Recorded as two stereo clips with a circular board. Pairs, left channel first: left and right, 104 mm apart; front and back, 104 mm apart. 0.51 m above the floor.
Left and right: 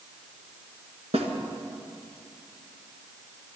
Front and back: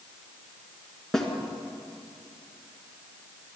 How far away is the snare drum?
About 1.9 m.